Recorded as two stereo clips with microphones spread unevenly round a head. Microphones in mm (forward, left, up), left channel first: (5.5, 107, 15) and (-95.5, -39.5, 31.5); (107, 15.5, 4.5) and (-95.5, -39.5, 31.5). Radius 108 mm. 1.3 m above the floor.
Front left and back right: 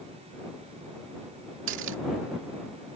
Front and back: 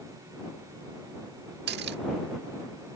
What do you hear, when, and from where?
1.7 s cutlery clinking: 125° right